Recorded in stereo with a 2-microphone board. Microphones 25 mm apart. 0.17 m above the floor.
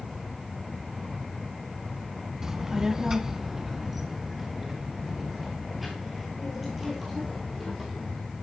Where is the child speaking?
25° right (ahead or behind), 0.7 m; by 8.2 s centre (ahead or behind), 3 m.